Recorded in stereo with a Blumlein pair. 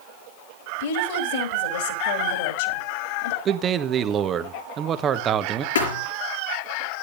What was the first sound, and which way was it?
A woman speaking, 55° left.